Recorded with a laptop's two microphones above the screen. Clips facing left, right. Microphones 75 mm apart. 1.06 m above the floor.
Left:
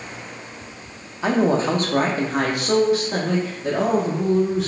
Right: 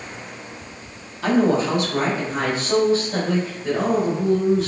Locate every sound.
1.2 s a woman speaking: 20° left (ahead or behind), 0.9 m; by 4.7 s 85° left, 2.5 m